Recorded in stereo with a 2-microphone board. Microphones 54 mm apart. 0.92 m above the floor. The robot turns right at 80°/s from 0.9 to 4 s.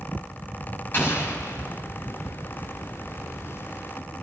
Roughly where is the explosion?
Ahead left.